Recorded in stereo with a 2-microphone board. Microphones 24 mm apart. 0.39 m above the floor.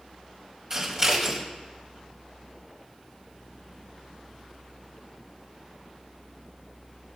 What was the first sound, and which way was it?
Scissors, 25° right (ahead or behind).